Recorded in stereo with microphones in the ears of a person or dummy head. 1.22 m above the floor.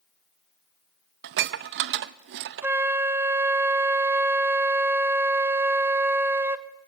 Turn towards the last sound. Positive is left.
turn(degrees=-10)  # may be behind; listen again after turning